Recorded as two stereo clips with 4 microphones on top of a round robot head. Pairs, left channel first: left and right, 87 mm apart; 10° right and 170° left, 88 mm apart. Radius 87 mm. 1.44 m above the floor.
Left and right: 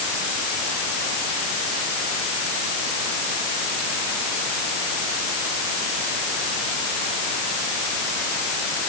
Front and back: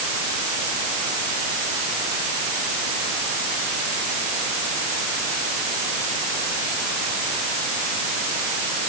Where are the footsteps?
I don't hear footsteps.